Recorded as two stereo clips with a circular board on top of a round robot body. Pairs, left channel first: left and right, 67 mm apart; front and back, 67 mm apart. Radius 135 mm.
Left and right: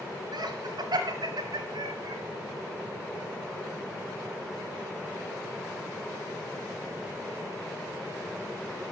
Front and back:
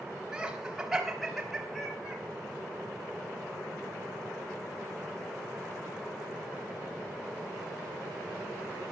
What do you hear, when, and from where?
0.3 s laughter: 100° right, 4.5 m; by 2.2 s 90° right, 5 m